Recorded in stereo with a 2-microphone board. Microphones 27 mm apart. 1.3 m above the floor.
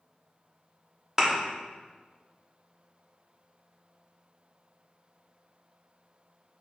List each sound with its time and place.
1.2 s a thud: 15° right (ahead or behind), 0.9 m